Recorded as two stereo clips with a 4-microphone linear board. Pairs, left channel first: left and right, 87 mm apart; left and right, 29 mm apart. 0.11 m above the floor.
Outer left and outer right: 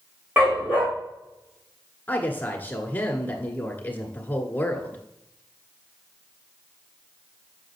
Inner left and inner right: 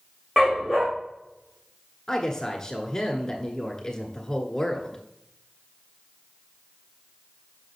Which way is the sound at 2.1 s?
20° left (ahead or behind).